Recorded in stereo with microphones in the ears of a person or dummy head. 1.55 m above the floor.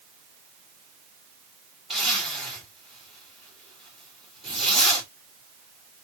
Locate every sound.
1.9 s a zipper: 5° left (ahead or behind), 2 m